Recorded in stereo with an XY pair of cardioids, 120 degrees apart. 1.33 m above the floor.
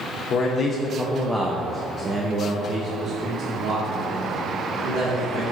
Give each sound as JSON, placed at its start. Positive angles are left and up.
{"t": 0.3, "sound": "a man speaking", "azimuth_deg": 50, "distance_m": 0.9}